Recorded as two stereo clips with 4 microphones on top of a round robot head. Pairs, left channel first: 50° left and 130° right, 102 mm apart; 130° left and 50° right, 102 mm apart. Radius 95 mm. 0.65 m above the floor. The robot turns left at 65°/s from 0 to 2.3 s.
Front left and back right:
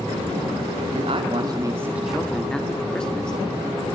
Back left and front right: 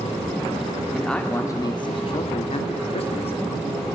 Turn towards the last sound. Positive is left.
turn(degrees=135)